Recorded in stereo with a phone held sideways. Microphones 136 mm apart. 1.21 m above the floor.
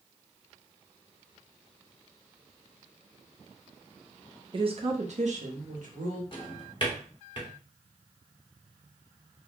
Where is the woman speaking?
40° right (ahead or behind), 0.6 m; by 6.2 s 70° right (ahead or behind), 1.4 m.